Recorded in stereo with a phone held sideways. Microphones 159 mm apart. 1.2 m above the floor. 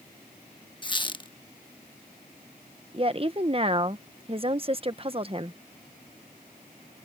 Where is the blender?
I don't hear a blender.